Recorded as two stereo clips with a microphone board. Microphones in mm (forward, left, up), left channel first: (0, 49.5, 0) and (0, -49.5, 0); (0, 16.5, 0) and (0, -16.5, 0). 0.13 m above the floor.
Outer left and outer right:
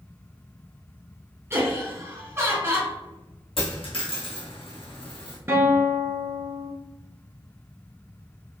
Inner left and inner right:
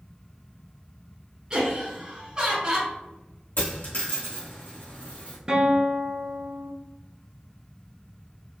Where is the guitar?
25° right (ahead or behind), 0.9 m.